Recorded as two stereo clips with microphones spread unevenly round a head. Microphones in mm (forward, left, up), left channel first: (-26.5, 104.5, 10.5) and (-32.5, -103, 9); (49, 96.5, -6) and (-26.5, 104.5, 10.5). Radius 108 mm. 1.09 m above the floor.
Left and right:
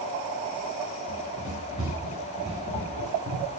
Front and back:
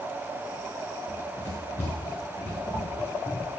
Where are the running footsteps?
15° right, 7 m; by 3.5 s 50° right, 5.5 m.